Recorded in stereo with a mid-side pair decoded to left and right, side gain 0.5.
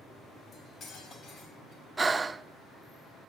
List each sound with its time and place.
0.5 s cutlery clinking: 50° left, 5.5 m
2.0 s breathing: 25° right, 0.7 m